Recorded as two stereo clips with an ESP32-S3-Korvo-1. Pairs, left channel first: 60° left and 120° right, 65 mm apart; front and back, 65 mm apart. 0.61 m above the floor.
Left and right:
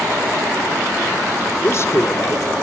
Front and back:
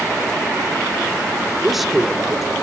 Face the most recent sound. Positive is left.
turn(degrees=90)